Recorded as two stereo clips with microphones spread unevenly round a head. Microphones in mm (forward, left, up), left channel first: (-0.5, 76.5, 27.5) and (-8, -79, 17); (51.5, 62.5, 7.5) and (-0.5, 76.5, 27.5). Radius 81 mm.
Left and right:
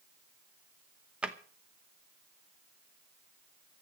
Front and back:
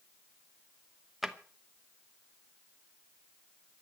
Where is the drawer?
175° right, 0.9 m.